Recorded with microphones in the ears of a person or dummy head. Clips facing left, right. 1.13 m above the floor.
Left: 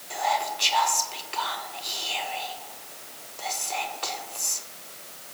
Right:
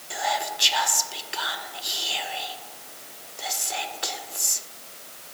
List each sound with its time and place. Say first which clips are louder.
0.1 s whispering: left 1 dB; 15° right (ahead or behind), 0.5 m